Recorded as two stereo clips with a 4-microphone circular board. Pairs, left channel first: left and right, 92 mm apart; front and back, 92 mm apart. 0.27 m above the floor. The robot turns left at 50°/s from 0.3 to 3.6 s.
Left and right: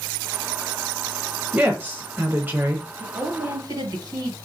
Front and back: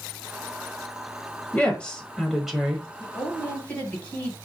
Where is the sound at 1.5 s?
50° right, 1.2 m; by 2.9 s 115° right, 1.2 m.